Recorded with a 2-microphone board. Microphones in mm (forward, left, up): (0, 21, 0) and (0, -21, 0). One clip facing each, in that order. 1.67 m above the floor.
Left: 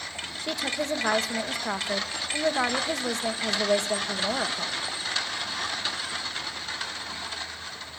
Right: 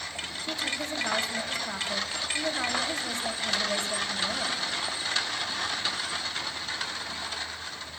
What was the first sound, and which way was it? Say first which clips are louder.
A woman speaking: left 4 dB; 85° left.